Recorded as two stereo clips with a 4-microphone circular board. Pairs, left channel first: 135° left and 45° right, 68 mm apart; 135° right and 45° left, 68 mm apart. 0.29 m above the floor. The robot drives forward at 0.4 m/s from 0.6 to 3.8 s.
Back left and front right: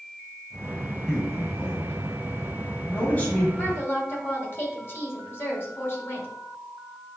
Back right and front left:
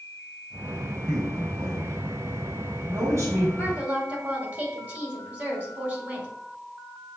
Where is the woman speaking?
100° left, 1.8 m; by 6.3 s 105° left, 1.8 m.